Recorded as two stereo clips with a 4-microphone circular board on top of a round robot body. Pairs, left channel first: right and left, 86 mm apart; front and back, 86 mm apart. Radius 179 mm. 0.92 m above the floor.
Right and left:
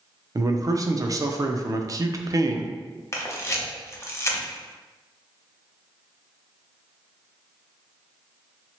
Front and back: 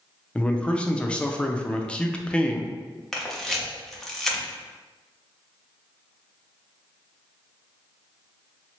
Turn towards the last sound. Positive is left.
turn(degrees=-85)